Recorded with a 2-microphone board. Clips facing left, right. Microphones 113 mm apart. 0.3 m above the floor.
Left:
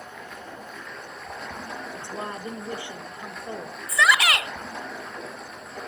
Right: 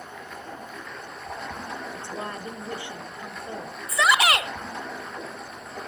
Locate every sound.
0.0 s running water: centre (ahead or behind), 5 m
1.9 s a woman speaking: 20° left (ahead or behind), 1.1 m
3.9 s a shout: 30° right (ahead or behind), 1.0 m